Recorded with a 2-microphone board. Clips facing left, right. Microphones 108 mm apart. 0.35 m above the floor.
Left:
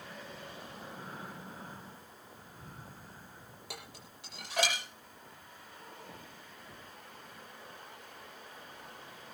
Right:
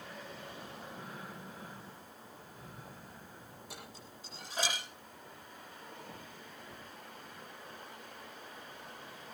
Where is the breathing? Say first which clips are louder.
Left 1 dB; 35° left (ahead or behind), 4.5 m.